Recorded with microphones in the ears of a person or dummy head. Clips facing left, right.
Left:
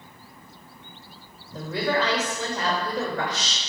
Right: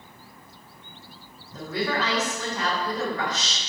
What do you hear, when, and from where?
1.5 s a woman speaking: 45° left (ahead or behind), 1.2 m